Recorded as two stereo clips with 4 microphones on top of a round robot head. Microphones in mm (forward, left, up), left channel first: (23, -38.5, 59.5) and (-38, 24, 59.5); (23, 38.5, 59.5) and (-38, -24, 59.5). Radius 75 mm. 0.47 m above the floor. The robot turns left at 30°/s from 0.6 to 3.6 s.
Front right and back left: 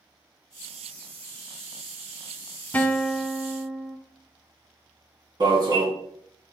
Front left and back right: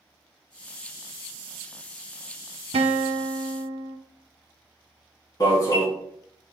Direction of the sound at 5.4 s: 95° left.